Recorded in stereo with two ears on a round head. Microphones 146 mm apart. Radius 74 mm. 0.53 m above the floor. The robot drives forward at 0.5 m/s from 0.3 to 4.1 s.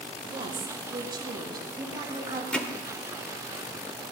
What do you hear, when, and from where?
0.3 s a woman speaking: 35° right (ahead or behind), 2 m; by 2.4 s 25° right (ahead or behind), 3 m
2.5 s hammering: 5° left (ahead or behind), 1.2 m